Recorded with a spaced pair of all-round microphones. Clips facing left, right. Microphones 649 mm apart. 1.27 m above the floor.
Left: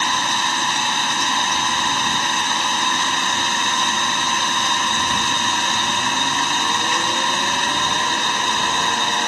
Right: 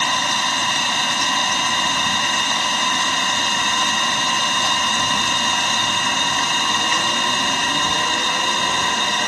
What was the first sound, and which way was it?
An engine running, 15° right (ahead or behind).